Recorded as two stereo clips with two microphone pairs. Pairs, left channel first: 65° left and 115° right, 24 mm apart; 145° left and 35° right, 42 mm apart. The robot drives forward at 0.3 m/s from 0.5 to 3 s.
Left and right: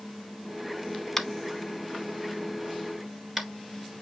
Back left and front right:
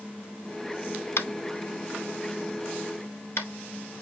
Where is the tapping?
140° left, 0.6 m; by 3.5 s 160° left, 1.1 m.